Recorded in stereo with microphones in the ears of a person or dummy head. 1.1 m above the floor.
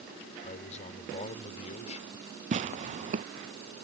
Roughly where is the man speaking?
Left.